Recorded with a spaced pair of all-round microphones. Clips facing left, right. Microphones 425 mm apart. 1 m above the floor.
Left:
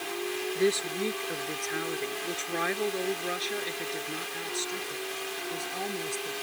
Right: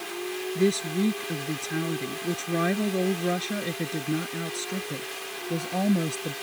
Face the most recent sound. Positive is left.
turn(degrees=-80)